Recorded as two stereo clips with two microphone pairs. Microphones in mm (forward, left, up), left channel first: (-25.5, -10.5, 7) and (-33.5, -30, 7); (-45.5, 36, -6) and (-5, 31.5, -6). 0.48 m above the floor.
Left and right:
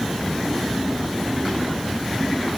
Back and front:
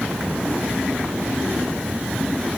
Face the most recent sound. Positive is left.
No sound to turn to.